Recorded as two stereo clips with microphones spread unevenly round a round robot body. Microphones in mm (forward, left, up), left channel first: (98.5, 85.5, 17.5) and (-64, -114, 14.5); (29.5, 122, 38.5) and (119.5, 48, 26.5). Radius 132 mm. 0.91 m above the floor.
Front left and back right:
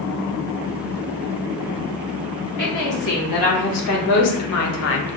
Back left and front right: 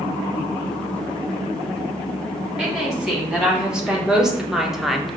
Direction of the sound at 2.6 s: 40° left.